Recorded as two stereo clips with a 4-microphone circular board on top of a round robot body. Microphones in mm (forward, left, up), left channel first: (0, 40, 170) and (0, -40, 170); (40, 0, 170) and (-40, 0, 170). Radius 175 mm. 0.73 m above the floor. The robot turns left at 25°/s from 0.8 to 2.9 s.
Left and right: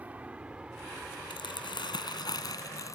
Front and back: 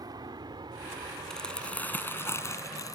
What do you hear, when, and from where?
0.0 s an aircraft: 160° right; by 3.0 s 125° left
1.3 s crumpling: 85° left; by 3.0 s 45° left